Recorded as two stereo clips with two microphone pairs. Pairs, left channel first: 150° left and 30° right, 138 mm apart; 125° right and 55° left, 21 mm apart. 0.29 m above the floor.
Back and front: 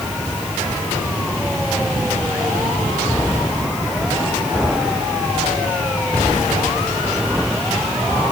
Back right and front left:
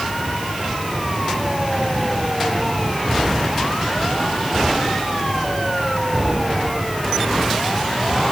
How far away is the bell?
No bell in this recording.